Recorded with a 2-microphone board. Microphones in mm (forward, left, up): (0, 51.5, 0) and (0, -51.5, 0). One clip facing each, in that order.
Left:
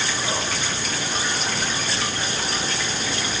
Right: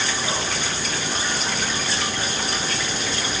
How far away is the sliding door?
No sliding door in this recording.